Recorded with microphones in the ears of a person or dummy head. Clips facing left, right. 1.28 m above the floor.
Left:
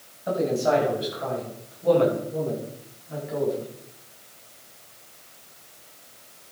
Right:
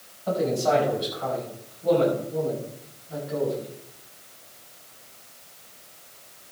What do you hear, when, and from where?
0.3 s a man speaking: 20° left (ahead or behind), 8 m; by 3.7 s 35° left (ahead or behind), 10 m